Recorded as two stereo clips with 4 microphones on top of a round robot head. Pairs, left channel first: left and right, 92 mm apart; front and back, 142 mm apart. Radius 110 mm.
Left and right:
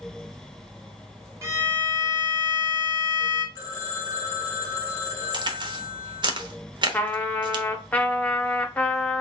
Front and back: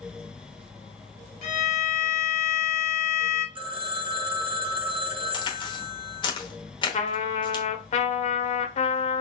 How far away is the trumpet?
About 0.9 m.